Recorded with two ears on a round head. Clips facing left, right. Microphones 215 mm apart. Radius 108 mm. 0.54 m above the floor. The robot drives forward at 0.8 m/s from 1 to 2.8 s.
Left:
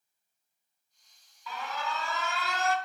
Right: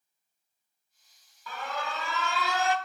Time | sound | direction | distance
1.5 | an alarm | 40° right (ahead or behind) | 1.4 m